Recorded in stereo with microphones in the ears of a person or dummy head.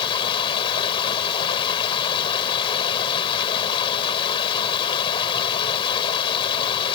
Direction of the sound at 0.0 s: 30° left (ahead or behind).